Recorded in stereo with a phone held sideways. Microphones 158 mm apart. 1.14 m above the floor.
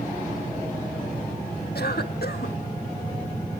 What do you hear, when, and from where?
1.8 s a cough: 85° left, 1.4 m